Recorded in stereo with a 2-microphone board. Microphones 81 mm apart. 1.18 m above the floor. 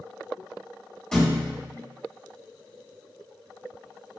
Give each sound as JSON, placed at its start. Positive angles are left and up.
{"t": 1.1, "sound": "a thud", "side_deg": 10, "distance_m": 1.4}